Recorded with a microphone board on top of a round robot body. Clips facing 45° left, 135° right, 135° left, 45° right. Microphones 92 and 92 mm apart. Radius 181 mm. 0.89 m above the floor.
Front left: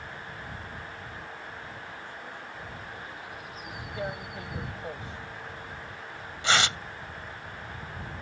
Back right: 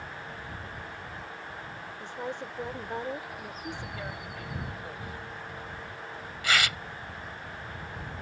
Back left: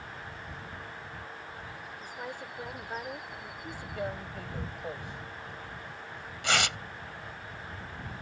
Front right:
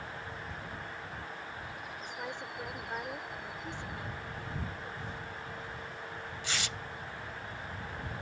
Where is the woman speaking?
145° right.